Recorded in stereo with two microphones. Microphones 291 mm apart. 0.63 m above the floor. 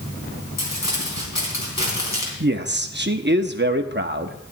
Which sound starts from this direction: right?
A man speaking, at 2.4 s.